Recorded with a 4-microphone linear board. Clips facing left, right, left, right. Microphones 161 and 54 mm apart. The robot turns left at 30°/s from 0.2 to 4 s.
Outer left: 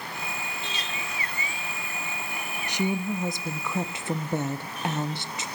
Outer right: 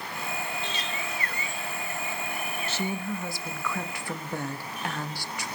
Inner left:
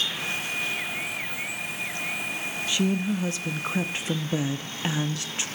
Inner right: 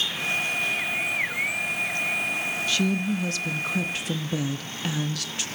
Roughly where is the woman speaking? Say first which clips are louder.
Outer left 5 dB, inner left 1 dB; centre.